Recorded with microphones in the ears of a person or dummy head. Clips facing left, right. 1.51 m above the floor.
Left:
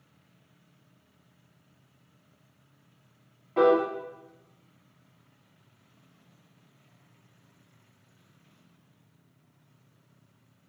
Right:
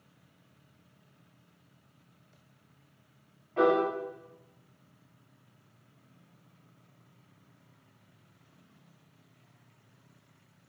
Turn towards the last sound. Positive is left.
turn(degrees=45)  # may be behind; listen again after turning